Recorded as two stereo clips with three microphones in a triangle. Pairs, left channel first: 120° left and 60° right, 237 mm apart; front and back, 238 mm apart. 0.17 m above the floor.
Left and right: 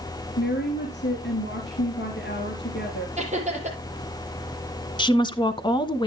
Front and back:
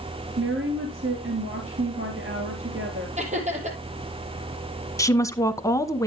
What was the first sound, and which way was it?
A woman speaking, 160° left.